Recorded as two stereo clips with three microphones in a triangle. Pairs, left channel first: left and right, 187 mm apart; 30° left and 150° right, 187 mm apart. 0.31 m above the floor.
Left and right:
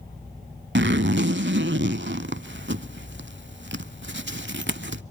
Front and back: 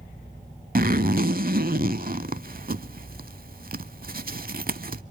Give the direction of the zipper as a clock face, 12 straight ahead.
4 o'clock.